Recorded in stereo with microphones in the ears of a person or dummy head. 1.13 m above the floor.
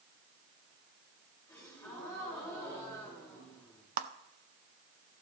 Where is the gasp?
15° left (ahead or behind), 4 m.